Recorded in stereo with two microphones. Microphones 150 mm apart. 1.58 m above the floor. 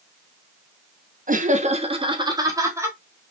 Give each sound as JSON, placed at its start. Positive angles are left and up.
{"t": 1.3, "sound": "laughter", "side_deg": -65, "distance_m": 1.0}